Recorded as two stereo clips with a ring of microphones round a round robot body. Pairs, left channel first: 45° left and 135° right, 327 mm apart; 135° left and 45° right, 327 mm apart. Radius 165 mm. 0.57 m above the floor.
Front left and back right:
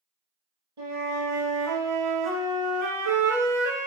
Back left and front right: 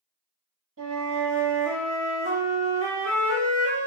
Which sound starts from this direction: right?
A flute, at 0.8 s.